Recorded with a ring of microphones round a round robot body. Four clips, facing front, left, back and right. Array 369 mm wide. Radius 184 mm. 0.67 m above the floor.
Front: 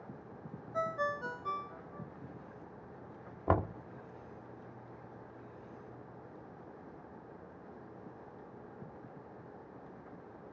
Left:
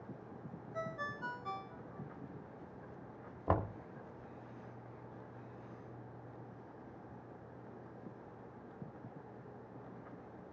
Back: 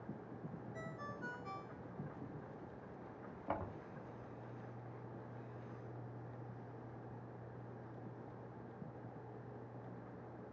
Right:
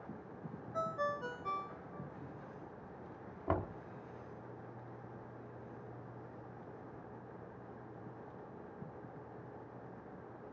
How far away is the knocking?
About 1.4 m.